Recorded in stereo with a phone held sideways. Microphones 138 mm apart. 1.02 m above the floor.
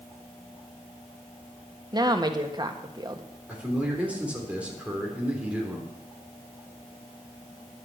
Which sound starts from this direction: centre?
A man speaking, at 3.5 s.